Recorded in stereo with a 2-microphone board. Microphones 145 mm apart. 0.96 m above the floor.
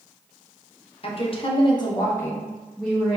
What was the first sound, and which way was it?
A woman speaking, 45° left (ahead or behind).